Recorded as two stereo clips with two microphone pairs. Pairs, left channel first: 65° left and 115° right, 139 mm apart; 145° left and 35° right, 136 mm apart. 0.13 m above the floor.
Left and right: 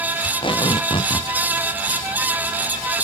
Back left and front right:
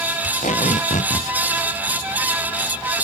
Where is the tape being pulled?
115° left.